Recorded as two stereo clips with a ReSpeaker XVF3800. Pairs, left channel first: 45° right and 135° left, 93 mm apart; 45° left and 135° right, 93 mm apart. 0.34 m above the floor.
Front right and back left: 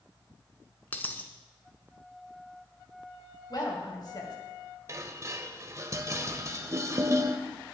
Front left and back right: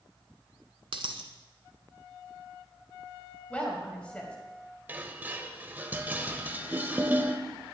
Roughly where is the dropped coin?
Behind right.